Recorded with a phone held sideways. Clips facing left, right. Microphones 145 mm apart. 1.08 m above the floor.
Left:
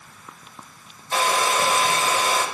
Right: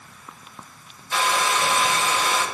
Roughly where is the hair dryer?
Left.